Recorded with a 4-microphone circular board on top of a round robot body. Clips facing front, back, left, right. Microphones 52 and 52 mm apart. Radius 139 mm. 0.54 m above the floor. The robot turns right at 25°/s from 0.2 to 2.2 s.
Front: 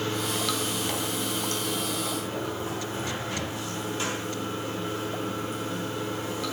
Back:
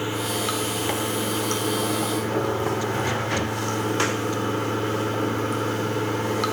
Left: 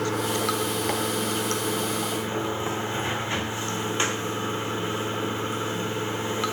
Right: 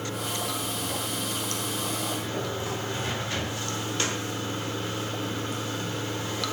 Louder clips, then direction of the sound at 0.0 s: Back 3 dB, left 6 dB; 105° left.